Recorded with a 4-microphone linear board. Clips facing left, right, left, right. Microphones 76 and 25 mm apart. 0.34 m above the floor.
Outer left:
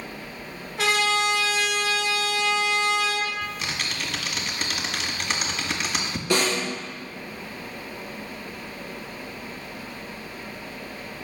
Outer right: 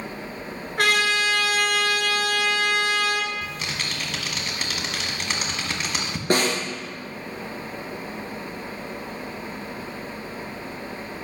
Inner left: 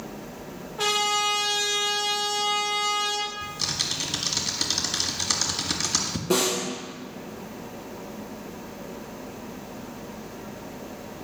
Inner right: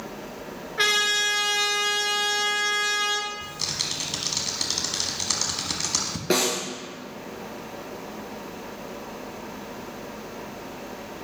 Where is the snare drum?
45° right (ahead or behind), 3 m.